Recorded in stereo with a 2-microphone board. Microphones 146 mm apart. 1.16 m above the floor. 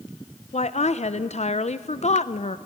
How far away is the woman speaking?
About 0.6 m.